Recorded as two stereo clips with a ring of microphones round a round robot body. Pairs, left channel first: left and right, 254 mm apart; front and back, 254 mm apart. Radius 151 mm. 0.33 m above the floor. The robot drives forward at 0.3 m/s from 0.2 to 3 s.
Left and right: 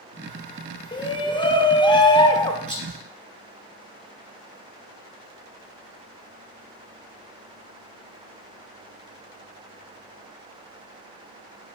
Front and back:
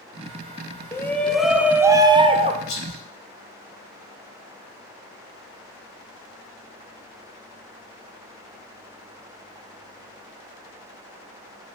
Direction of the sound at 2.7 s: 15° left.